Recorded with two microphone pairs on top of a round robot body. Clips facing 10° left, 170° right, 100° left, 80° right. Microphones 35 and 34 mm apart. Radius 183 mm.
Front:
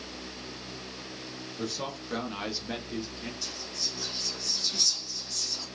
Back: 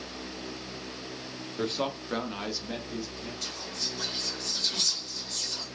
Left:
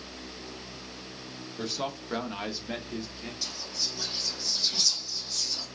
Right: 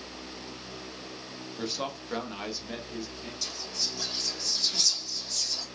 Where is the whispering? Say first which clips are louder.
Back 1 dB, even; 170° left, 2.5 m.